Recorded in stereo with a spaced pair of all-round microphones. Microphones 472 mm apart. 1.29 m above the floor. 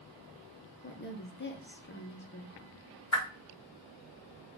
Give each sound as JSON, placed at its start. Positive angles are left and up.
{"t": 0.8, "sound": "a woman speaking", "side_deg": 25, "distance_m": 0.8}
{"t": 3.1, "sound": "a whoosh", "side_deg": 70, "distance_m": 1.7}